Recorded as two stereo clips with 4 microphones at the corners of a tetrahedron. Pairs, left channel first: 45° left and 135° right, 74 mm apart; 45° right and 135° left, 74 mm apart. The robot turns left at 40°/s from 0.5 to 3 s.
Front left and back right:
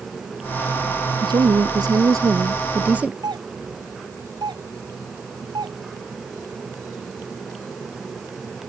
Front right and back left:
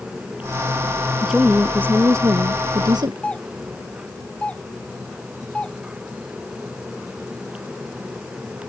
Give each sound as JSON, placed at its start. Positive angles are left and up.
{"t": 1.2, "sound": "a woman speaking", "azimuth_deg": -135}
{"t": 3.2, "sound": "a doorbell", "azimuth_deg": -120}